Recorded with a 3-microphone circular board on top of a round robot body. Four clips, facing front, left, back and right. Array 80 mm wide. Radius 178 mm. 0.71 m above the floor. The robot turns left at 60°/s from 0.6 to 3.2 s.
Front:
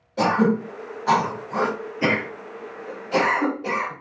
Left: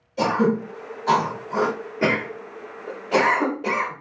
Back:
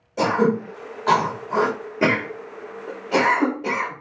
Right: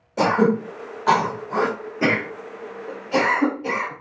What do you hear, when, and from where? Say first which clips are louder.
0.2 s throat clearing: right 2 dB, even; 95° right, 2.5 m; by 3.9 s 110° left, 2.5 m